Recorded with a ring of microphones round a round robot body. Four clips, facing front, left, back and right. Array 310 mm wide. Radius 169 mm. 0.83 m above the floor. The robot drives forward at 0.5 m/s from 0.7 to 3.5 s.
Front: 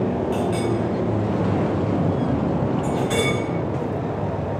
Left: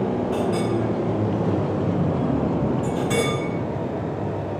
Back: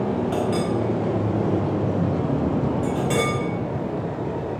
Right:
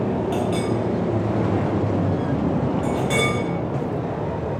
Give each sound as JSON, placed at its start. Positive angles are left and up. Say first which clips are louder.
{"t": 0.3, "sound": "a clink", "louder": "even, even", "azimuth_deg": -115, "distance_m": 1.3}